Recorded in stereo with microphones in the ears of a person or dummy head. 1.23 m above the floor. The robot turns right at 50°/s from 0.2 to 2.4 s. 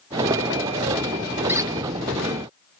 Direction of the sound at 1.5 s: 10° right (ahead or behind).